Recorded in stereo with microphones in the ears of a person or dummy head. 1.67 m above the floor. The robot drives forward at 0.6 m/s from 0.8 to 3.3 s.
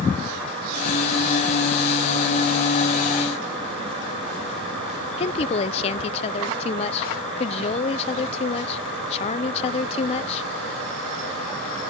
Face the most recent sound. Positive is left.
turn(degrees=35)  # may be behind; listen again after turning